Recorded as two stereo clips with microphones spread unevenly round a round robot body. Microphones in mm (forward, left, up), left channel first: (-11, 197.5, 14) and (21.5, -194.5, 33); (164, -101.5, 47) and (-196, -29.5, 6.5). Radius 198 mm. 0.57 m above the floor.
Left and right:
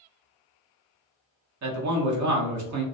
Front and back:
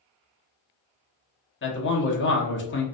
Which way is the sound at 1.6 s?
65° right.